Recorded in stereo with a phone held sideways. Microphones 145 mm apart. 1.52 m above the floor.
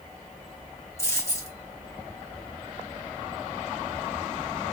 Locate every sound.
1.0 s a dropped coin: 20° left (ahead or behind), 2.0 m